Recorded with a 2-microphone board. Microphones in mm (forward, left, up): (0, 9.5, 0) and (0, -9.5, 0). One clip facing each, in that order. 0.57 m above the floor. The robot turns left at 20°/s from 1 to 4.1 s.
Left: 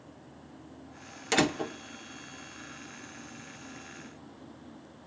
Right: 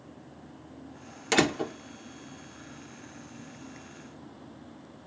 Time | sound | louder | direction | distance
1.3 | a door slam | right 2 dB | 15° right (ahead or behind) | 0.9 m